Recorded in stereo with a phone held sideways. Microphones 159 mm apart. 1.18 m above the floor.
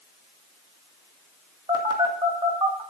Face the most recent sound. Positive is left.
turn(degrees=-30)  # may be behind; listen again after turning